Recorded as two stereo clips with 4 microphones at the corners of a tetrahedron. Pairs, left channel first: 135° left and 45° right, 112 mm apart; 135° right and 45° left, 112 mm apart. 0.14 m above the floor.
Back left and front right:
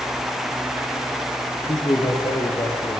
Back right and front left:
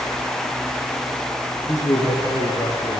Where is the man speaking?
170° left, 2.5 m; by 3.0 s 175° left, 3 m.